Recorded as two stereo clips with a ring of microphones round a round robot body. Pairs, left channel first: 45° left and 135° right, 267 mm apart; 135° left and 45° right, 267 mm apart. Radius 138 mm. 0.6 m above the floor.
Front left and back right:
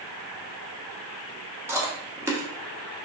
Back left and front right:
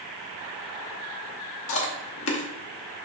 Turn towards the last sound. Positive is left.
turn(degrees=145)